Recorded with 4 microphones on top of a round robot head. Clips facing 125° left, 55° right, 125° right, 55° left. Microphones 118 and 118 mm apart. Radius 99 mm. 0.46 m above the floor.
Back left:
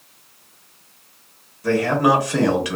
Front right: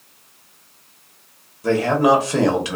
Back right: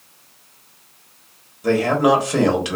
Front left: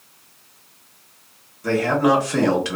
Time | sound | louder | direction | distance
1.6 | a man speaking | front right 1 dB, back right 2 dB | 75° right | 1.1 m